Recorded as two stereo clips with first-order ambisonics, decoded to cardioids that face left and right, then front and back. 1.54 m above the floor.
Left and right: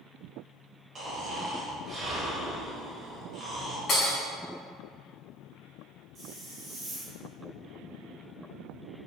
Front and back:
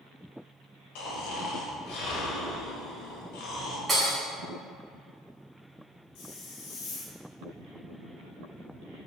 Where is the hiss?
20° right, 1.0 m.